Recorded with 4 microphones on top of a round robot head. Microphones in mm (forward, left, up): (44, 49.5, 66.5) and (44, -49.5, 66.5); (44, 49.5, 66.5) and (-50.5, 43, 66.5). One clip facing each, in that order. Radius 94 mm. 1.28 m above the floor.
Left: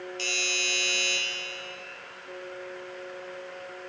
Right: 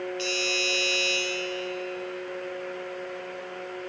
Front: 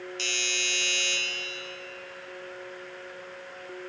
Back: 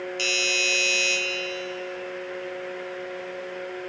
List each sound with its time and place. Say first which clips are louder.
0.2 s a doorbell: right 5 dB, back 7 dB; 150° left, 3 m